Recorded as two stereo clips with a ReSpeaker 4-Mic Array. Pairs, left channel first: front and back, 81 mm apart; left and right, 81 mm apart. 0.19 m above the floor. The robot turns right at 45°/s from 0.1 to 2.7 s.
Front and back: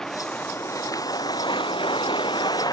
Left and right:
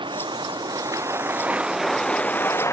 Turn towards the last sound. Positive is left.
turn(degrees=35)